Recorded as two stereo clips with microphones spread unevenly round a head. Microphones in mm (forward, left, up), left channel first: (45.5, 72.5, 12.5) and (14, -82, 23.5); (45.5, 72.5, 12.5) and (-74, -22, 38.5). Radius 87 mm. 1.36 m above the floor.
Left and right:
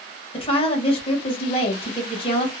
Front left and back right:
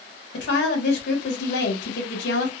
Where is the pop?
I don't hear a pop.